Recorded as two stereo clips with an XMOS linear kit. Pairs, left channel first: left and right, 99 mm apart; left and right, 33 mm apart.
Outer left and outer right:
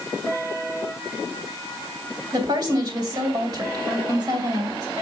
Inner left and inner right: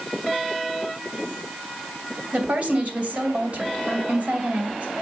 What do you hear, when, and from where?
2.3 s a woman speaking: 45° right (ahead or behind), 2 m